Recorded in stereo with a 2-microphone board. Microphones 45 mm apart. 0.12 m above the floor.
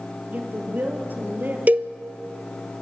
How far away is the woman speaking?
About 3 m.